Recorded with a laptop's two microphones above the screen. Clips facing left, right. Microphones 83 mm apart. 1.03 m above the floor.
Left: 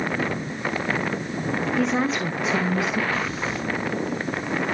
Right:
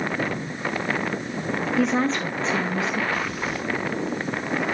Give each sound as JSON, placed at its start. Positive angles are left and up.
{"t": 1.8, "sound": "a woman speaking", "side_deg": -5, "distance_m": 0.5}
{"t": 3.1, "sound": "breathing", "side_deg": 35, "distance_m": 5.0}